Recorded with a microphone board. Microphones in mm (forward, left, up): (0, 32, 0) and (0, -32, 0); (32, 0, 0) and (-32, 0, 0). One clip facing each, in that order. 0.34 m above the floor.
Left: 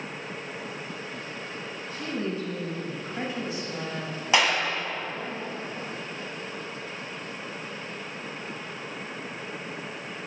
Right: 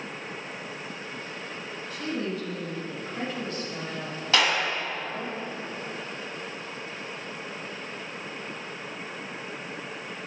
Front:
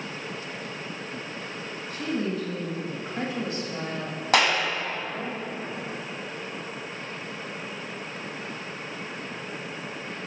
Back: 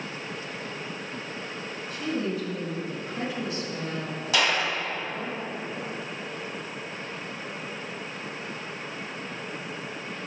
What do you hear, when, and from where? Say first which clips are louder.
1.9 s a woman speaking: even, front 1 dB; 35° left, 3 m; by 5.3 s 55° right, 1.5 m
4.3 s a clap: left 1 dB, front 3 dB; 20° left, 1.9 m